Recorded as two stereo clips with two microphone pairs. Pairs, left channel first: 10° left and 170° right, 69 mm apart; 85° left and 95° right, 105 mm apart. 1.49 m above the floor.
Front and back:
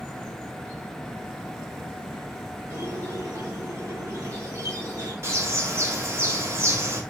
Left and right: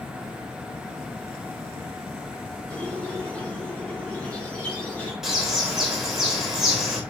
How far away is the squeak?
About 1.9 m.